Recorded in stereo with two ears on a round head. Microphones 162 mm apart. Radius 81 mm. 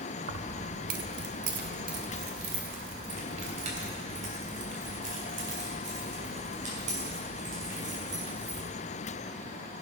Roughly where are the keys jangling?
Right.